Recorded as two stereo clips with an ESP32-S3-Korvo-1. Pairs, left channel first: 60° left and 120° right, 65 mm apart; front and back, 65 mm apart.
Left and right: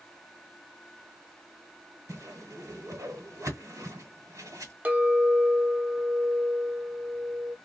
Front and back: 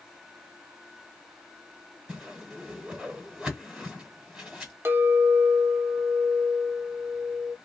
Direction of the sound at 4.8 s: 165° right.